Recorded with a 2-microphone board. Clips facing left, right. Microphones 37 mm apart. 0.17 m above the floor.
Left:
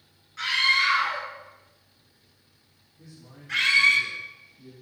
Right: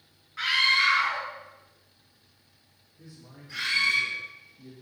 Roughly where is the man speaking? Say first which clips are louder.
Even; centre.